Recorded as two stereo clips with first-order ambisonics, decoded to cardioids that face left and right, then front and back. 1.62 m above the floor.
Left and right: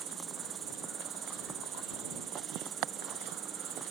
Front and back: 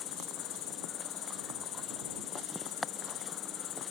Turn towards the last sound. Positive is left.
turn(degrees=-35)